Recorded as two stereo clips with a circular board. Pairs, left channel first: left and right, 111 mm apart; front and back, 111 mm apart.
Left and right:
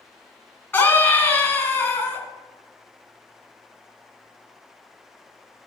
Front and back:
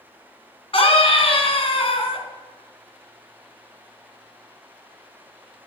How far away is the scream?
About 2 m.